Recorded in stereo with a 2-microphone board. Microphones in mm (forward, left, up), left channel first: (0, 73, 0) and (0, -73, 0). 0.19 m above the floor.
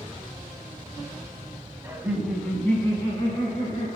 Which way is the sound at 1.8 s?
20° right (ahead or behind).